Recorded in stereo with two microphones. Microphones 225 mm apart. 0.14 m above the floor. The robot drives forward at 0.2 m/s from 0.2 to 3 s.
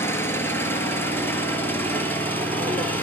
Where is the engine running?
10° left (ahead or behind), 1.7 m.